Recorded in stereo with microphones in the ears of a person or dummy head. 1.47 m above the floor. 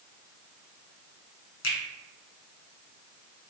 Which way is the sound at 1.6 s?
90° left.